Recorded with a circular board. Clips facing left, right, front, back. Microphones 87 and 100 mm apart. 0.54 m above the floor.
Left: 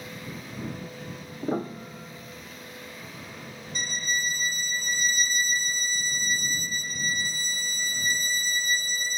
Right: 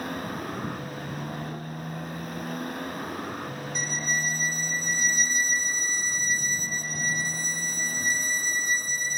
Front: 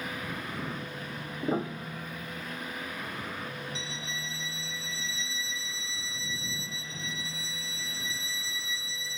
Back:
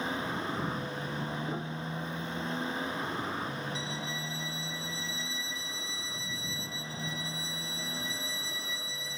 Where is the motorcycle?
120° right.